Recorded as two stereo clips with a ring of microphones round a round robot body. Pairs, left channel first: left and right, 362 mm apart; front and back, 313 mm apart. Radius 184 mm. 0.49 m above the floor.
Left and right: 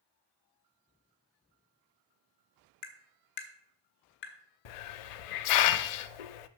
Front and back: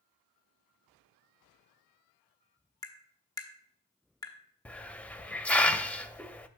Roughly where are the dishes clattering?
No dishes clattering in this recording.